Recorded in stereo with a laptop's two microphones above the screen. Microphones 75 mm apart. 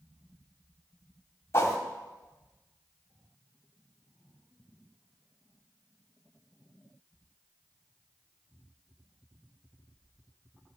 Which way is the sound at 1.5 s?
35° left (ahead or behind).